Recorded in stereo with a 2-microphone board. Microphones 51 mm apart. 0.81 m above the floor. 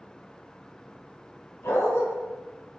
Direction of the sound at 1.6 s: 65° left (ahead or behind).